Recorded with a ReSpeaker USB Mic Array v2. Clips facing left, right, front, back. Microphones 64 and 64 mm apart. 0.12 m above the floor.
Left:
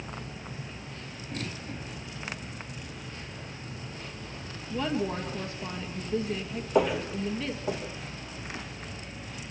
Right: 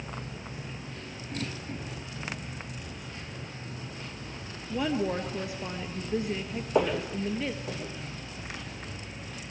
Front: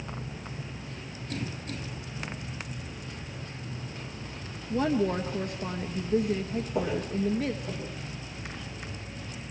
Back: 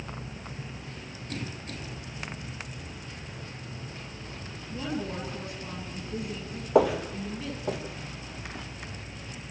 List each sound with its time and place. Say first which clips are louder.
4.7 s a woman speaking: right 1 dB, front 8 dB; 20° right, 2 m
6.8 s footsteps: left 1 dB, back 8 dB; straight behind, 1.3 m; by 8.6 s 150° left, 4 m